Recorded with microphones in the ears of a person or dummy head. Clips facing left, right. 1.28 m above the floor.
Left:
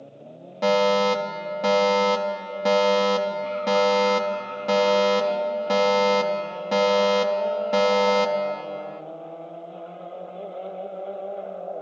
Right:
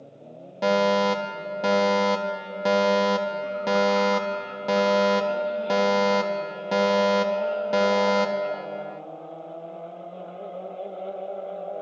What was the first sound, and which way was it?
A fire alarm, centre (ahead or behind).